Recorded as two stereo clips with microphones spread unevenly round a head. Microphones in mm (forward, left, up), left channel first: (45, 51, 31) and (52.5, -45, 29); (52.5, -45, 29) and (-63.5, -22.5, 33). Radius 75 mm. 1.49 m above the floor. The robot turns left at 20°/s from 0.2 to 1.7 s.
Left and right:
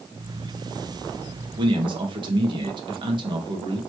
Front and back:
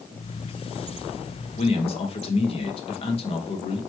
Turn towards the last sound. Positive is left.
turn(degrees=-50)